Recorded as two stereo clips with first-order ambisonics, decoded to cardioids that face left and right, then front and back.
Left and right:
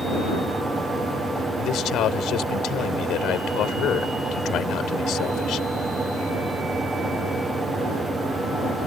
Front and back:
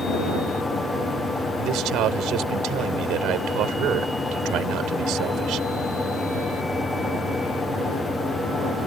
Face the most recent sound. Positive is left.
turn(degrees=140)